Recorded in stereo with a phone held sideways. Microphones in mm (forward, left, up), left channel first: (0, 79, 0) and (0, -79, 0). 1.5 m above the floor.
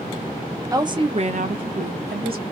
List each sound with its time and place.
0.7 s a woman speaking: 20° right (ahead or behind), 0.6 m; by 2.4 s 70° right (ahead or behind), 0.8 m